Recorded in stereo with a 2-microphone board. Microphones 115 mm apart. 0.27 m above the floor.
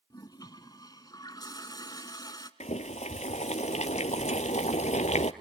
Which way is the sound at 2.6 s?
85° left.